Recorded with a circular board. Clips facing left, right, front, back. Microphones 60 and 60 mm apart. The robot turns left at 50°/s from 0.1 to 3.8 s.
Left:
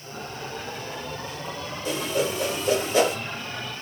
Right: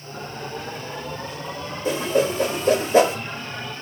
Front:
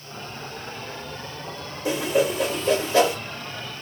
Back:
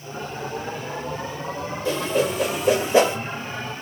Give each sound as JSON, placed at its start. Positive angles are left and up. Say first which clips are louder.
{"t": 1.9, "sound": "a whoosh", "louder": "right 5 dB, front 1 dB", "azimuth_deg": -65, "distance_m": 0.7}